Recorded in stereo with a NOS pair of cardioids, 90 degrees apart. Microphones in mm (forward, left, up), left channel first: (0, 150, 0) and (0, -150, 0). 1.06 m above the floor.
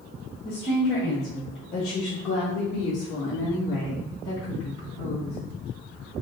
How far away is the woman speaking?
About 1.1 m.